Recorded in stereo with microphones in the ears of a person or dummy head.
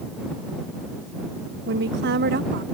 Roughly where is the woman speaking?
Right.